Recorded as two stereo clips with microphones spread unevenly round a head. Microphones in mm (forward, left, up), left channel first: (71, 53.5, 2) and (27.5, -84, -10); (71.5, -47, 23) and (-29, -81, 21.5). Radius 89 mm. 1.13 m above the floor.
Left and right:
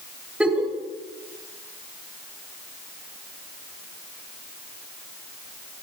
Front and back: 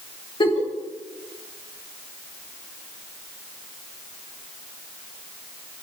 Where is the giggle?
25° right, 3 m.